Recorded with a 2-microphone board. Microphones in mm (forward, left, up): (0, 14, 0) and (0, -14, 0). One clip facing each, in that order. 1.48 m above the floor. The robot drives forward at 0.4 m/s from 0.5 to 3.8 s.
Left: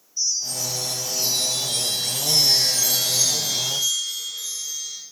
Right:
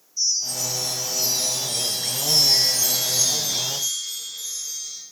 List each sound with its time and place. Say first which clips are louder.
0.2 s a chime: right 1 dB; 65° left (ahead or behind), 3 m; by 5.0 s 70° left (ahead or behind), 3 m